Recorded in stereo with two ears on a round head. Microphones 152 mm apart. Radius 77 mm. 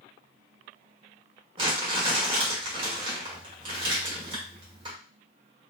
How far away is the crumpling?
About 1.5 m.